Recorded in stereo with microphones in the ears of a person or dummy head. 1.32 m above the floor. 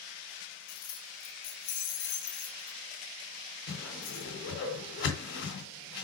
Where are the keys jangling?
65° left (ahead or behind), 1.7 m; by 4.3 s 70° left (ahead or behind), 3.5 m.